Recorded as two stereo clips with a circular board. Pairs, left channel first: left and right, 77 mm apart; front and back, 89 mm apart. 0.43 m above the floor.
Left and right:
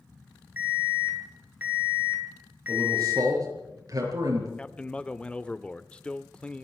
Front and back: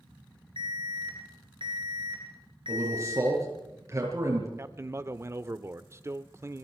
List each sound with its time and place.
0.6 s an alarm: 160° right, 7 m
2.7 s a man speaking: 125° right, 7 m
4.6 s a man speaking: 155° left, 0.9 m